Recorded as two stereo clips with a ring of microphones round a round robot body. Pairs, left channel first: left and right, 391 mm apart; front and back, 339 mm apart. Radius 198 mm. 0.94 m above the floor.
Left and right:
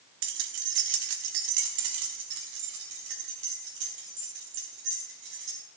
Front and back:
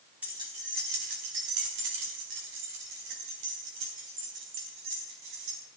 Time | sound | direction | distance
0.2 | keys jangling | 95° right | 1.1 m